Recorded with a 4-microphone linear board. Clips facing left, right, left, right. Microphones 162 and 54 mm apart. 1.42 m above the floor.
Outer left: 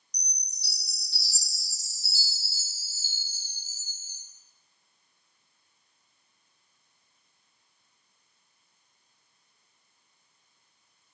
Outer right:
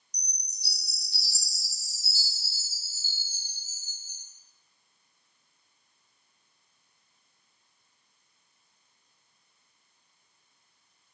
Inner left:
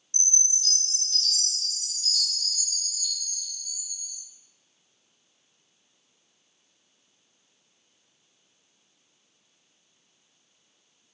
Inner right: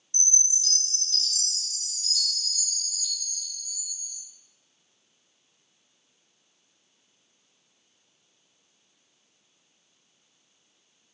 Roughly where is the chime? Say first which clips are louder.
Outer left 1 dB, even; centre.